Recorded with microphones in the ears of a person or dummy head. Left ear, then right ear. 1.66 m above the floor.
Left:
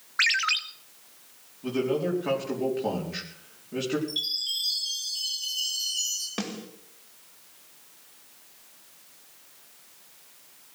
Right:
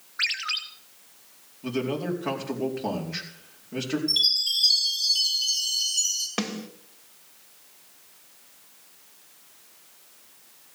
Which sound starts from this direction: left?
A ringtone, at 0.2 s.